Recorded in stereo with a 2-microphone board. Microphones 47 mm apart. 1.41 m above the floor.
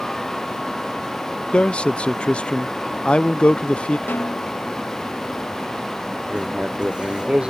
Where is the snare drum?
55° left (ahead or behind).